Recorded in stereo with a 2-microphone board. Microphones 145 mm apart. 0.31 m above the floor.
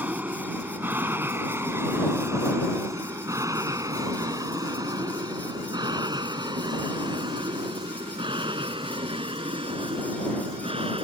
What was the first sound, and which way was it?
An aircraft, 10° right (ahead or behind).